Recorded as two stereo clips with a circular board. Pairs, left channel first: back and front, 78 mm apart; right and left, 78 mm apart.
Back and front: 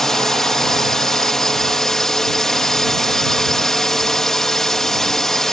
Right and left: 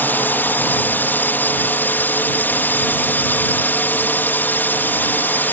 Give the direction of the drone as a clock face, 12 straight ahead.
3 o'clock.